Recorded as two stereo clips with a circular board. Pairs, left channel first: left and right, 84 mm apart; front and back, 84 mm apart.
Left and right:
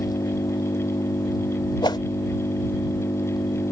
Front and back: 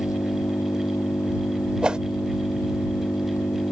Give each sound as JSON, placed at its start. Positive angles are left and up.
{"t": 0.0, "sound": "an engine running", "azimuth_deg": 55}
{"t": 1.8, "sound": "a whoosh", "azimuth_deg": 100}